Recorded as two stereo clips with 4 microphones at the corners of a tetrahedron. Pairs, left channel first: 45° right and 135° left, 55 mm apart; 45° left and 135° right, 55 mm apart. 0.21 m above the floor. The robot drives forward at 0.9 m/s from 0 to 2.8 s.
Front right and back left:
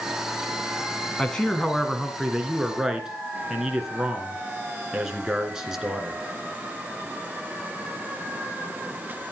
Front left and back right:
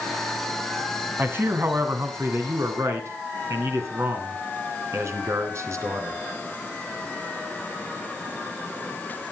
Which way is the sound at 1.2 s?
110° right.